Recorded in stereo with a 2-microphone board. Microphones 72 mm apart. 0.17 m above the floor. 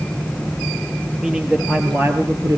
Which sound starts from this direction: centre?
A man speaking, at 1.2 s.